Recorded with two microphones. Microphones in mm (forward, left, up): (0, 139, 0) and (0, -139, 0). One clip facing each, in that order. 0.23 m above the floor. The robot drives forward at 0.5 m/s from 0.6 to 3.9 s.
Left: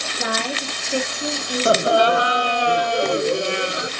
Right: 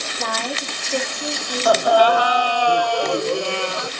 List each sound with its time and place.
0.2 s a woman speaking: 10° left (ahead or behind), 3 m
1.6 s laughter: 25° left (ahead or behind), 1.0 m; by 3.9 s 15° left (ahead or behind), 1.6 m